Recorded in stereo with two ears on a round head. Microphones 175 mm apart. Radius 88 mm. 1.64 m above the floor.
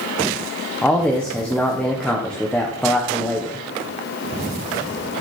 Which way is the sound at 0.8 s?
5° left (ahead or behind).